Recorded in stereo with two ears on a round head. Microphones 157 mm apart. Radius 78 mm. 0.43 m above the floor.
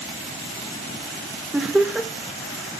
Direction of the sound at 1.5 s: 5° right (ahead or behind).